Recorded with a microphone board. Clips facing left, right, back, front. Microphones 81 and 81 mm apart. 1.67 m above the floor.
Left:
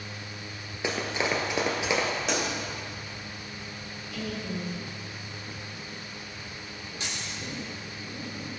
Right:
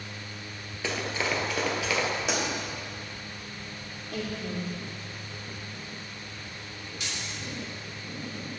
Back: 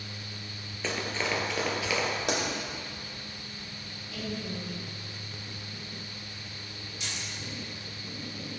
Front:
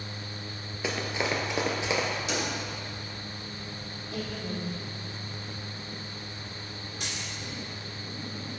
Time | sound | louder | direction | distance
0.8 | running footsteps | left 2 dB, front 1 dB | 55° left | 1.7 m
2.3 | a pop | left 1 dB, back 2 dB | 175° right | 2 m
4.1 | a woman speaking | right 1 dB, front 1 dB | 50° right | 2.5 m
7.0 | keys jangling | left 1 dB, front 1 dB | 35° left | 2.5 m